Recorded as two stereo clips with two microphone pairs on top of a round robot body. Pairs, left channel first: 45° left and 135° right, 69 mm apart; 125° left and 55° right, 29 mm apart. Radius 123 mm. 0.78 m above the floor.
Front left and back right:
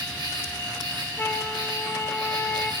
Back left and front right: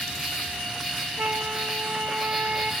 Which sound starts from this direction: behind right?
An insect, at 0.0 s.